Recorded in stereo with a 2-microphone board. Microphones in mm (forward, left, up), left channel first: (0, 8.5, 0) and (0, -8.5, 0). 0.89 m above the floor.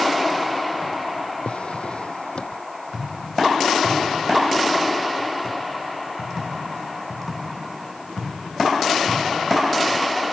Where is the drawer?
75° left (ahead or behind).